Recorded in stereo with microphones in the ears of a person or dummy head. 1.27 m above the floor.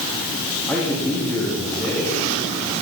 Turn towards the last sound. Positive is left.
turn(degrees=0)  # may be behind; listen again after turning